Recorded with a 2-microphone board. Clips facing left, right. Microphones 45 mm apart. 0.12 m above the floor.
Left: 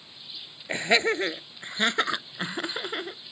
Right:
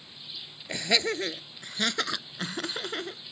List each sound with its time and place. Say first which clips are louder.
0.7 s laughter: left 5 dB; 25° left (ahead or behind); by 3.2 s 10° left (ahead or behind)